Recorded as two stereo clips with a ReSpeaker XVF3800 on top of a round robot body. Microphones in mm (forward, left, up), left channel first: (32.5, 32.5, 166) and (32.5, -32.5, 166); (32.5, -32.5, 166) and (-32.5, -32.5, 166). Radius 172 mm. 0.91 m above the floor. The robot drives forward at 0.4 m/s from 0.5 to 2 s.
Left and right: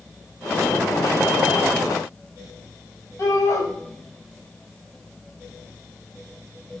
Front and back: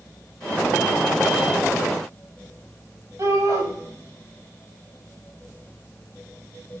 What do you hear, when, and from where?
3.2 s a shout: 140° left, 5.5 m